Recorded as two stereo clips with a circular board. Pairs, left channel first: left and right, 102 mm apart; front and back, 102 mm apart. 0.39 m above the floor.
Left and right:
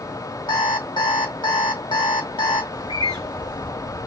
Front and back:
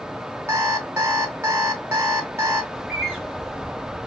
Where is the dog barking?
I don't hear a dog barking.